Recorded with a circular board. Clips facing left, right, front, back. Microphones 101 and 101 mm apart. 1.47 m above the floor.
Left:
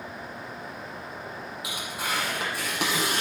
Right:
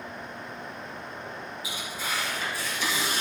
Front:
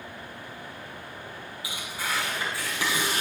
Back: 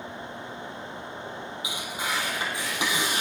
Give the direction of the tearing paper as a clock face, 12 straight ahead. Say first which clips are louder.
Left 3 dB, even; 8 o'clock.